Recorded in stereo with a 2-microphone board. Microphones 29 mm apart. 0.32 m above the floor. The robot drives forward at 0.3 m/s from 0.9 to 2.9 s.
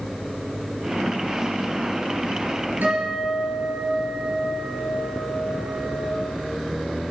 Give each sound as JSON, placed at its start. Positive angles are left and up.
{"t": 2.8, "sound": "a guitar", "side_deg": -75, "distance_m": 4.0}